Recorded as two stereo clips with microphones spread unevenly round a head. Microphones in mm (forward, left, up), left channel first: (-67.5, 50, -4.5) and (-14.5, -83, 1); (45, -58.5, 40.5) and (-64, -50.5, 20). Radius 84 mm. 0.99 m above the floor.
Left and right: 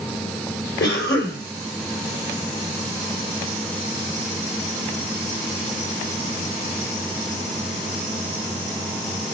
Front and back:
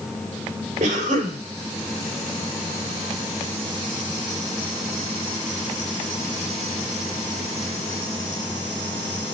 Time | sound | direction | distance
0.8 | a cough | 115° left | 3 m